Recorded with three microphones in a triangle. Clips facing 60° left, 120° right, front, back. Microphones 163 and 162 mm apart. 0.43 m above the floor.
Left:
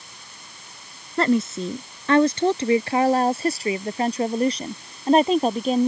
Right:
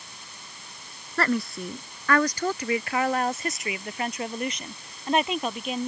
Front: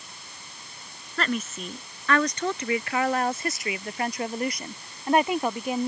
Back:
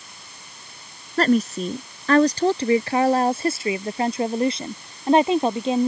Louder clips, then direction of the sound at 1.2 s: Left 6 dB, back 10 dB; 130° left.